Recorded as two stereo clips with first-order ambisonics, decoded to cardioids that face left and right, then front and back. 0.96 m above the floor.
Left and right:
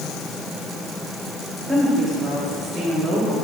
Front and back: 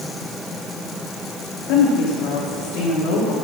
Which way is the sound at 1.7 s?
Straight ahead.